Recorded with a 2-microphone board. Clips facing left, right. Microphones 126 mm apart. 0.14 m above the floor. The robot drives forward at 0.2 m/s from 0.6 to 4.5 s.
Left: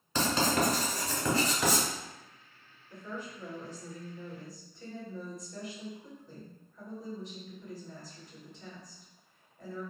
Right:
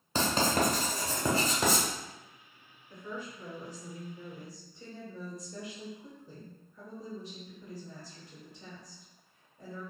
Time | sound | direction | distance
0.1 | writing | 30° right (ahead or behind) | 0.9 m
2.9 | a woman speaking | 15° right (ahead or behind) | 1.5 m